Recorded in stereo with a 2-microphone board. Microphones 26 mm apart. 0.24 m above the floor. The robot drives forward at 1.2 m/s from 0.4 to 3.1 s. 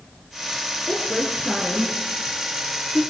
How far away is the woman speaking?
About 3 m.